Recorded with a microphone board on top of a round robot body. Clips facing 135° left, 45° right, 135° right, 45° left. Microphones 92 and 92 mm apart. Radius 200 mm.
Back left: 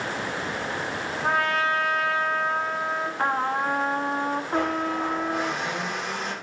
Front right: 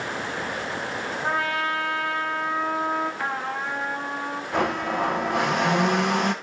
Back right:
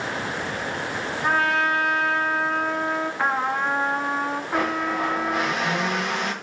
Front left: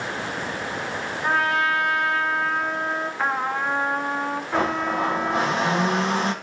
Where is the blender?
15° right, 1.2 m.